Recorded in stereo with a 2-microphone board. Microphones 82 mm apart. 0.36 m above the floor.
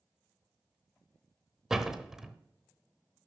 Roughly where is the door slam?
Centre.